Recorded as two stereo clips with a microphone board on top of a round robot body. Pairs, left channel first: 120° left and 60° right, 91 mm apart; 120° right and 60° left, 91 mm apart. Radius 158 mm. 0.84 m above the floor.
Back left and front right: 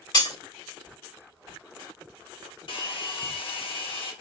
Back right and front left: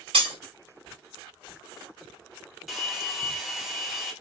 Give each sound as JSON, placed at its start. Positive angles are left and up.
{"t": 0.1, "sound": "breaking glass", "azimuth_deg": 80, "distance_m": 3.0}
{"t": 2.7, "sound": "a hair dryer", "azimuth_deg": 150, "distance_m": 1.2}